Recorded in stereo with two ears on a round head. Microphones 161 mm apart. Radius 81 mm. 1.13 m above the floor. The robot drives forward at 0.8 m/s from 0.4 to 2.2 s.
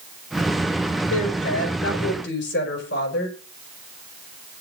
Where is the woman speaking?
80° left, 4.5 m; by 3.3 s 70° left (ahead or behind), 4.5 m.